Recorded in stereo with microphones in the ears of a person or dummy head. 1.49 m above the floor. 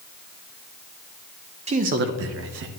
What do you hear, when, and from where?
1.7 s a man speaking: 35° right (ahead or behind), 0.9 m; by 2.7 s 65° right (ahead or behind), 1.0 m